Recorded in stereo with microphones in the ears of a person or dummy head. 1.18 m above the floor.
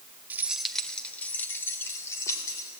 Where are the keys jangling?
5° right (ahead or behind), 1.0 m; by 2.7 s 25° left (ahead or behind), 3 m.